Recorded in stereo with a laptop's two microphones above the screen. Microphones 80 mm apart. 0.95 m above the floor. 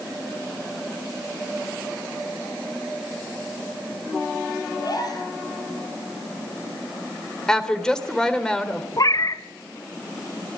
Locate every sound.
4.8 s a gasp: 50° left (ahead or behind), 7 m
7.5 s a woman speaking: 10° left (ahead or behind), 3.5 m
9.0 s a cat meowing: 50° left (ahead or behind), 1.3 m